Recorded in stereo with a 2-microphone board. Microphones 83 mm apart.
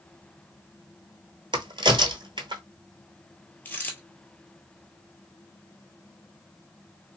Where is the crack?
75° right (ahead or behind), 0.7 m.